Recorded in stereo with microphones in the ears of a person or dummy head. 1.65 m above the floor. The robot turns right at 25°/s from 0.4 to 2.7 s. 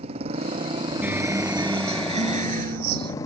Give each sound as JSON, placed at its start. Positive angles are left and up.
{"t": 0.0, "sound": "a motorcycle", "azimuth_deg": -35}
{"t": 1.0, "sound": "a guitar", "azimuth_deg": -170}